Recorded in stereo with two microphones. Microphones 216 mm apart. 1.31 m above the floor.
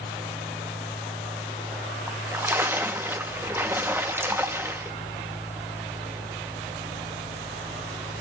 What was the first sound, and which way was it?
A splash, 10° right (ahead or behind).